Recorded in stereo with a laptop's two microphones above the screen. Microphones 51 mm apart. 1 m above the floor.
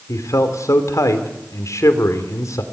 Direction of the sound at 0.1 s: 80° left.